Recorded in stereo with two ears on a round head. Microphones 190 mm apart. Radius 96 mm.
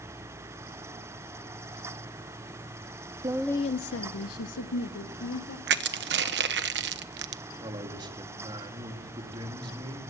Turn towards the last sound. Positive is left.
turn(degrees=-25)  # may be behind; listen again after turning